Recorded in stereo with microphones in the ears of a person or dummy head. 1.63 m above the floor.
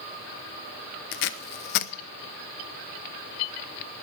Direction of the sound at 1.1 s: 60° left (ahead or behind).